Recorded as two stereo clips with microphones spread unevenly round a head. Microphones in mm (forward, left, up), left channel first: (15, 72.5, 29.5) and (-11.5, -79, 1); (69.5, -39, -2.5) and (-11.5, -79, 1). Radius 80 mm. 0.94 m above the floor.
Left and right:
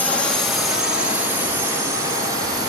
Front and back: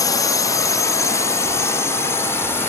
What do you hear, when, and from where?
0.0 s a drone: 5° right; by 2.7 s 35° right